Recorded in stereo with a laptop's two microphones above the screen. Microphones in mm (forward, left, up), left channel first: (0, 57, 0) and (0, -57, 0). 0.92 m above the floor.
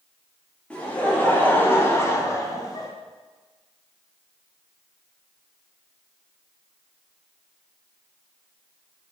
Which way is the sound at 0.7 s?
10° left (ahead or behind).